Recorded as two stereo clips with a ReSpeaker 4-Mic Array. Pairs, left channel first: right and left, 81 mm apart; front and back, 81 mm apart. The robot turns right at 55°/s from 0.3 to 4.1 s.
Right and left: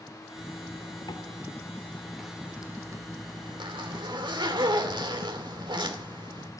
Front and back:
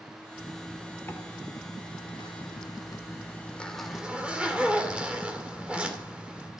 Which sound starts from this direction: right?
A zipper, at 0.4 s.